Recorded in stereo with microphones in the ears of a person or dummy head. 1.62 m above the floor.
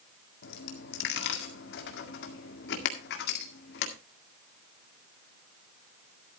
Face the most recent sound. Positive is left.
turn(degrees=60)  # may be behind; listen again after turning